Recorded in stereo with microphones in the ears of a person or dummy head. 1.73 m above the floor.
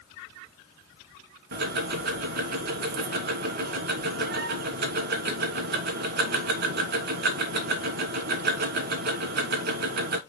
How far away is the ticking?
About 1.2 m.